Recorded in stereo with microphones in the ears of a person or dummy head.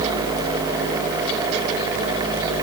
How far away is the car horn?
No car horn in this recording.